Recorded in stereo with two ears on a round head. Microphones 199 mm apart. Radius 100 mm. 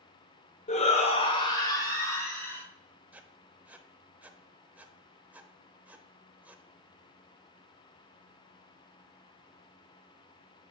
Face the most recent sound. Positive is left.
turn(degrees=-5)  # may be behind; listen again after turning